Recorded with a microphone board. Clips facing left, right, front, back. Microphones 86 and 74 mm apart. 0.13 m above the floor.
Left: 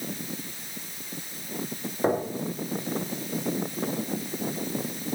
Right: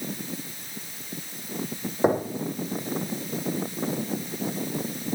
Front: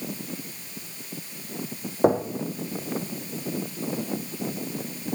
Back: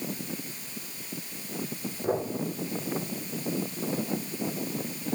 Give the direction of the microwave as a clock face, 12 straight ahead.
No microwave in this recording.